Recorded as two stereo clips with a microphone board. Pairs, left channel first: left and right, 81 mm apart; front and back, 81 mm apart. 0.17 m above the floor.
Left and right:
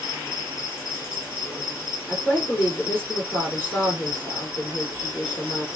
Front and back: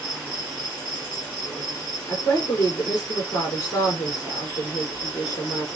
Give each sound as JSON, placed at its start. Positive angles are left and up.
{"t": 0.0, "sound": "an insect", "azimuth_deg": 65, "distance_m": 1.5}
{"t": 2.1, "sound": "a woman speaking", "azimuth_deg": 35, "distance_m": 1.9}